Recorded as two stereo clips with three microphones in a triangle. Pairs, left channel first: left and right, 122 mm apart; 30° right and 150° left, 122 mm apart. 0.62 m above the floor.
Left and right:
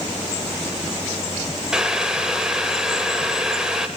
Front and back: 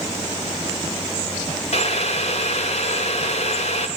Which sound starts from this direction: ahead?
Boiling, at 1.7 s.